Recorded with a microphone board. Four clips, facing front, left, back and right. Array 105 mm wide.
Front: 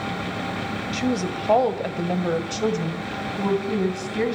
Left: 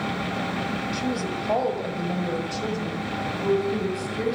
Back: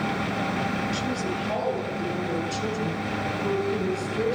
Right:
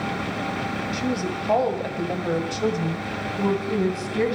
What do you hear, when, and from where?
0.9 s a woman speaking: 5° right, 2 m; by 4.3 s 40° right, 3 m